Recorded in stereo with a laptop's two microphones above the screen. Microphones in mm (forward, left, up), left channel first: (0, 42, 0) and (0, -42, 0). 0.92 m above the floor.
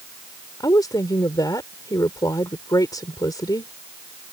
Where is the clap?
I don't hear a clap.